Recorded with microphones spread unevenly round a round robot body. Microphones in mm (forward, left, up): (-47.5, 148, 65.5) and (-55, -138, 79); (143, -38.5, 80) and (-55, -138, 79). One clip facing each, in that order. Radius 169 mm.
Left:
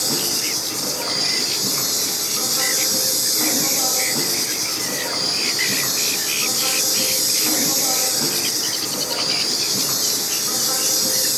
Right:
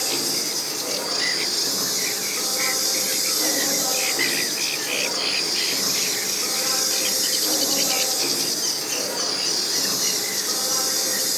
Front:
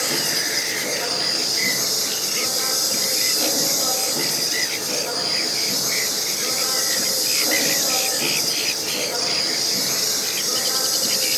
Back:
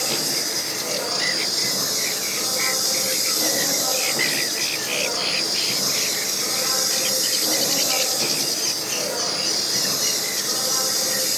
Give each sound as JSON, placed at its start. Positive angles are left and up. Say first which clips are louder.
{"t": 0.0, "sound": "an insect", "louder": "left 2 dB, front 1 dB", "azimuth_deg": 115, "distance_m": 4.0}